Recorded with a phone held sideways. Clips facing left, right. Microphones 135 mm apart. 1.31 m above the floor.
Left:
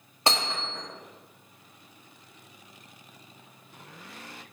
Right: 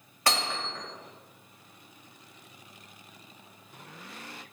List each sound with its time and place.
0.3 s hammering: 25° left (ahead or behind), 2 m